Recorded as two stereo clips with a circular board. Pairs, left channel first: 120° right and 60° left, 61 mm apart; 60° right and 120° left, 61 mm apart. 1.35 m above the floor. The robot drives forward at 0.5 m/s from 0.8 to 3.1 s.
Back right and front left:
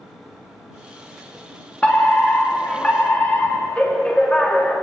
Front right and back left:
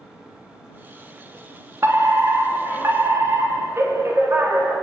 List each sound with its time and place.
1.8 s a fire alarm: 170° left, 4 m